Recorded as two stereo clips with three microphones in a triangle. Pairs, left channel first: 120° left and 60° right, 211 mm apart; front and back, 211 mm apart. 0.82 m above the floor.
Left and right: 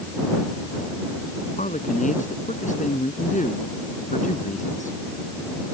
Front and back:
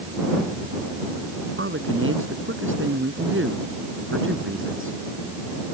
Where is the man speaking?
170° left.